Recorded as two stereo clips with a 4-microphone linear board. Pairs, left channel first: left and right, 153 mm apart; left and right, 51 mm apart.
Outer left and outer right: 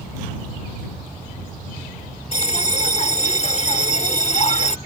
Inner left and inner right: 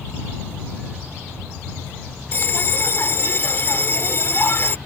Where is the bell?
45° left (ahead or behind).